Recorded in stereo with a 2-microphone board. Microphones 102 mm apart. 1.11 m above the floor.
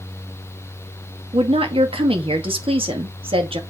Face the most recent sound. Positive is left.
turn(degrees=-65)  # may be behind; listen again after turning